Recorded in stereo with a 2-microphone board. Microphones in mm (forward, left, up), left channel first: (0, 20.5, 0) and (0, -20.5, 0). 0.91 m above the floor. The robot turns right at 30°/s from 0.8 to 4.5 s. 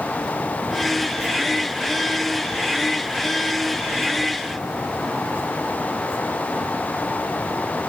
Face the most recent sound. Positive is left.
No sound to turn to.